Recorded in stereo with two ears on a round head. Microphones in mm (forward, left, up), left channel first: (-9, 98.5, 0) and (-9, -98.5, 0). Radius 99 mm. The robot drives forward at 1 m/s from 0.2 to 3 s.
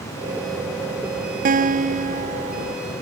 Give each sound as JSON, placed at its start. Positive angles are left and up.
{"t": 1.4, "sound": "a guitar", "side_deg": -40}